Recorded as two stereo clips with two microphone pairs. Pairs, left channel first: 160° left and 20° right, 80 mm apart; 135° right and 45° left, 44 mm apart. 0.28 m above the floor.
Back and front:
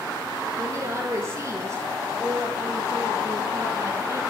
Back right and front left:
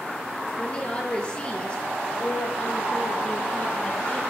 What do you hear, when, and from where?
0.6 s a woman speaking: 70° right, 5 m; by 4.2 s 75° right, 7 m